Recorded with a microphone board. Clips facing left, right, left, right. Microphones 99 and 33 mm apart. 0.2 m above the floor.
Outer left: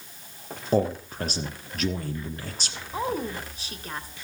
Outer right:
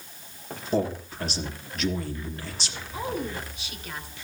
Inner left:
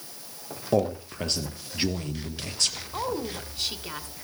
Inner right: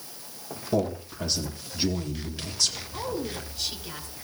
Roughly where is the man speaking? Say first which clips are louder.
Outer left 3 dB, inner left 2 dB; left.